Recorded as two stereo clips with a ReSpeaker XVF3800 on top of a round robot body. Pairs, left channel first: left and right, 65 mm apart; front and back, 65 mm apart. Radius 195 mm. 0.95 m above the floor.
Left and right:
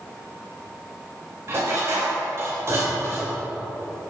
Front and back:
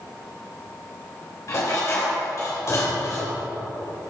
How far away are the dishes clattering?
About 2.5 m.